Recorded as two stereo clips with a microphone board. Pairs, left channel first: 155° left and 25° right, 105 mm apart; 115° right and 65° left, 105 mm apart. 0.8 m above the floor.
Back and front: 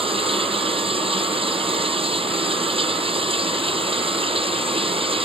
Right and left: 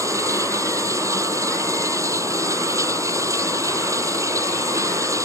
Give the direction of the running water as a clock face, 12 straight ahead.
12 o'clock.